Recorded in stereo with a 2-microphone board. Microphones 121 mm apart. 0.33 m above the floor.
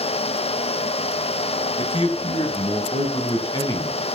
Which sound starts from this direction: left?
A man speaking, at 1.8 s.